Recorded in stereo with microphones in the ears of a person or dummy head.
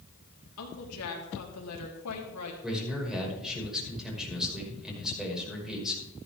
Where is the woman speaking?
80° left, 3.5 m.